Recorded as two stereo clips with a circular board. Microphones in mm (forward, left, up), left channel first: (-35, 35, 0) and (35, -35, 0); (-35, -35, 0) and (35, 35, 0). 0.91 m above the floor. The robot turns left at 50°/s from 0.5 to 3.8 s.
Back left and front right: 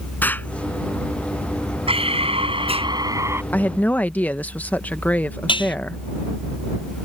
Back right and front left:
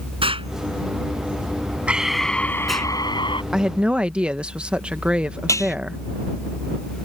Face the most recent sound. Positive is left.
turn(degrees=165)